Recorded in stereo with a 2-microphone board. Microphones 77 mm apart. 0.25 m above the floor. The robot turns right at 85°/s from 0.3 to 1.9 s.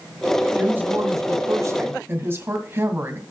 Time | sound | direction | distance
0.5 | a woman speaking | 160° right | 2.0 m